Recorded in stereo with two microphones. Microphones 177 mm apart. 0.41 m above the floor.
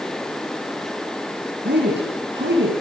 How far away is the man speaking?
About 7.5 m.